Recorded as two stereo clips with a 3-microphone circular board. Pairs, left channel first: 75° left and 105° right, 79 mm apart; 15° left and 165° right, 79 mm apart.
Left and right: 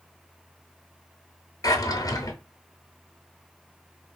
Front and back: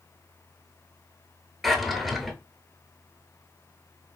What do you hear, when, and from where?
1.6 s a drawer: 105° left, 0.6 m